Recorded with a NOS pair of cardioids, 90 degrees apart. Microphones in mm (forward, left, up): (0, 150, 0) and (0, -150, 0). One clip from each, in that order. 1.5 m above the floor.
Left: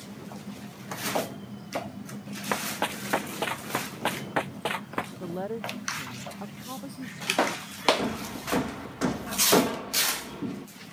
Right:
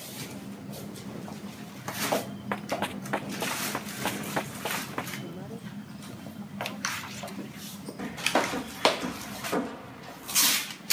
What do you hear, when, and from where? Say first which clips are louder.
2.5 s running footsteps: left 2 dB; 30° left
5.2 s a woman speaking: left 9 dB; 65° left
8.0 s hammering: right 6 dB; 55° left